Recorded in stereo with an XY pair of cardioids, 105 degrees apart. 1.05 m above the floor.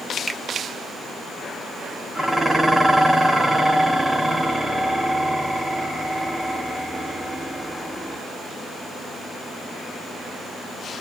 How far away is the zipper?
No zipper in this recording.